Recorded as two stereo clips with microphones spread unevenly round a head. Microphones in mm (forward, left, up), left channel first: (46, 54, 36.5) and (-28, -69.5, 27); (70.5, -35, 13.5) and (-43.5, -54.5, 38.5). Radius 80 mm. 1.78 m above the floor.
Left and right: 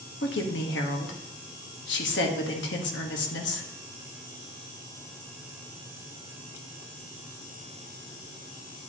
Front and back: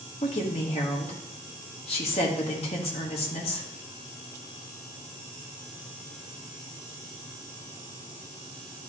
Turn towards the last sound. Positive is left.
turn(degrees=65)